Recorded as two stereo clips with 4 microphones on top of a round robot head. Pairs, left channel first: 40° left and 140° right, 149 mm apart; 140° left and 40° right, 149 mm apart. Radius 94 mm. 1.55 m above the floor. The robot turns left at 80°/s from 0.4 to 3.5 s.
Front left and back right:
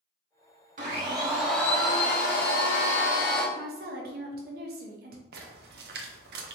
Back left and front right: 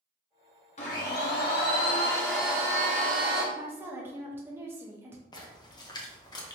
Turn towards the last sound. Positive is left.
turn(degrees=-155)